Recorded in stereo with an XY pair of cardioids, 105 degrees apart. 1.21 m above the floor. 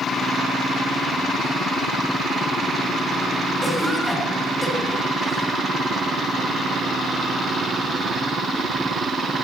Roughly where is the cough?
Ahead.